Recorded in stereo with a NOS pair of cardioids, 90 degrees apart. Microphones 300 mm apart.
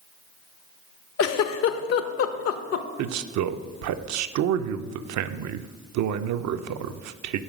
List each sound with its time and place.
1.2 s a giggle: 55° left, 0.6 m
3.0 s a man speaking: 65° right, 0.5 m